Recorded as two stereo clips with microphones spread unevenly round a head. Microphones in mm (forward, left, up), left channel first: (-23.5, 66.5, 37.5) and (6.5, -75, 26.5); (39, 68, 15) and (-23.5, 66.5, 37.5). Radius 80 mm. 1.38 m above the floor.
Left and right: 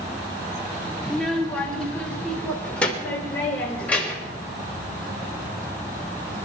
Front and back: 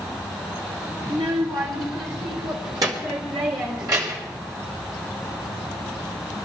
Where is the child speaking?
170° right, 2.5 m; by 4.4 s straight behind, 6 m.